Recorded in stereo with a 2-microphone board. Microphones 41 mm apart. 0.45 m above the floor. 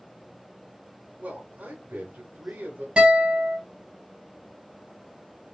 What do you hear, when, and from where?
1.2 s a man speaking: 45° right (ahead or behind), 1.0 m
3.0 s a guitar: 30° right (ahead or behind), 3 m